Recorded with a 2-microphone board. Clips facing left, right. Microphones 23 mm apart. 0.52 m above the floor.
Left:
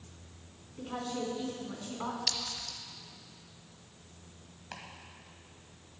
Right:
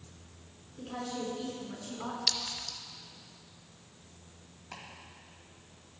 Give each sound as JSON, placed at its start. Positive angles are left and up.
{"t": 0.8, "sound": "a woman speaking", "side_deg": 40, "distance_m": 4.0}
{"t": 2.3, "sound": "a clink", "side_deg": -15, "distance_m": 1.0}
{"t": 4.7, "sound": "chopping", "side_deg": 35, "distance_m": 2.5}